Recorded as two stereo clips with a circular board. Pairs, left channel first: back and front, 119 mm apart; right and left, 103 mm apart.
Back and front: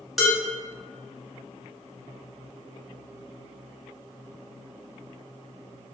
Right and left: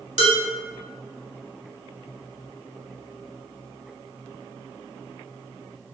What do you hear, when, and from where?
0.2 s dishes clattering: 90° right, 1.4 m